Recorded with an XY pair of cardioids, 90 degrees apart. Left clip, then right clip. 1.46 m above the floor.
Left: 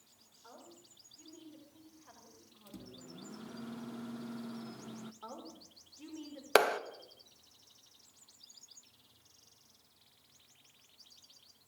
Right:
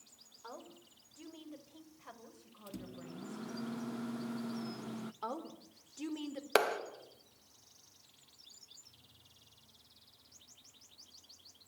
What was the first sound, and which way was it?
A woman speaking, 70° right.